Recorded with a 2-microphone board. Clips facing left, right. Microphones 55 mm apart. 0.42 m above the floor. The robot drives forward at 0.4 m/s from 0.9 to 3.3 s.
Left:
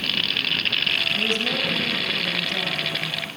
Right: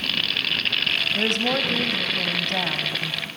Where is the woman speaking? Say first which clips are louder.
Right 1 dB; 65° right (ahead or behind), 2 m; by 3.3 s 55° right (ahead or behind), 2.5 m.